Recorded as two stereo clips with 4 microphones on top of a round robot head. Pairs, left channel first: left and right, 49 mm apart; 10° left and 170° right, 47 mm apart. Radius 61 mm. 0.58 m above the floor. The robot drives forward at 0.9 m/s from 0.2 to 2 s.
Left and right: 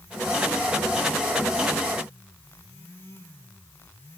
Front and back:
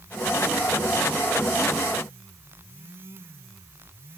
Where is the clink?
I don't hear a clink.